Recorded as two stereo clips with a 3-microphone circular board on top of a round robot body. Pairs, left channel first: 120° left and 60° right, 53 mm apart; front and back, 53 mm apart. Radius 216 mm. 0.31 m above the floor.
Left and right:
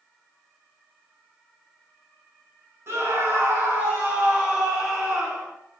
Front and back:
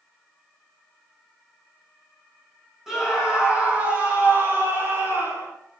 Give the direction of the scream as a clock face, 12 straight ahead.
3 o'clock.